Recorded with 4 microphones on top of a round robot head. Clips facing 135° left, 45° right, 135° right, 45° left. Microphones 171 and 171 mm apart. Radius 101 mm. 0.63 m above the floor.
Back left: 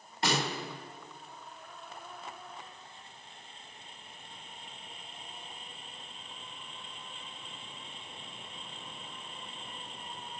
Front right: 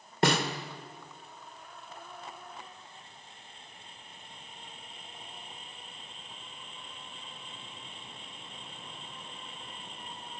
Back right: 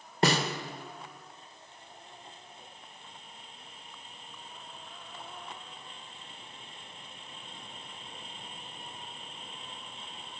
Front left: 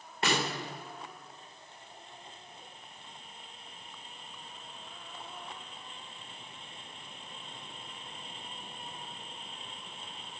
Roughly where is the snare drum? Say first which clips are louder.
Front right 5 dB, back right 4 dB; right.